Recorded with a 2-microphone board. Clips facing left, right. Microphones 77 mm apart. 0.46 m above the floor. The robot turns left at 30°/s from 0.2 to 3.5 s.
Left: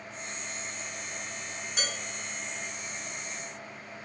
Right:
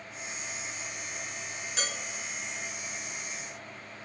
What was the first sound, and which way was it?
Dishes clattering, 5° left (ahead or behind).